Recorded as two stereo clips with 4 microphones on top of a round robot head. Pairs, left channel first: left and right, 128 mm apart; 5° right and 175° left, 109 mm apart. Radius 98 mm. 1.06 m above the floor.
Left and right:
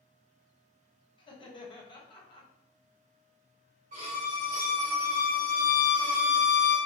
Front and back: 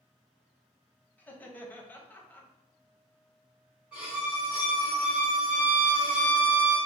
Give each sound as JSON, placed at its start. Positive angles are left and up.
{"t": 1.2, "sound": "laughter", "azimuth_deg": 65, "distance_m": 0.9}
{"t": 3.9, "sound": "a violin", "azimuth_deg": -100, "distance_m": 0.9}